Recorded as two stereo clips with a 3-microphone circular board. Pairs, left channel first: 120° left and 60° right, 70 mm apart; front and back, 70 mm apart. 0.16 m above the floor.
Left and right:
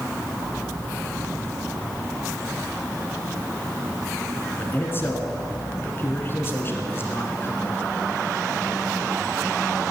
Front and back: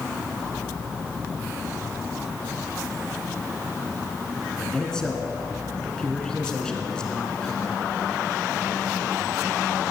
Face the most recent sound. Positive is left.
turn(degrees=75)